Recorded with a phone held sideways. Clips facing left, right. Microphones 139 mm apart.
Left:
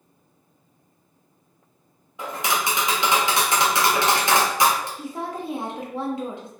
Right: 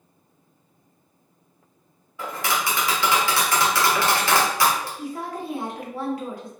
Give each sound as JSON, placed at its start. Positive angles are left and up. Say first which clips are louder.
{"t": 2.2, "sound": "tapping", "louder": "left 1 dB", "side_deg": 20, "distance_m": 0.7}
{"t": 5.0, "sound": "a woman speaking", "louder": "even", "side_deg": 25, "distance_m": 0.7}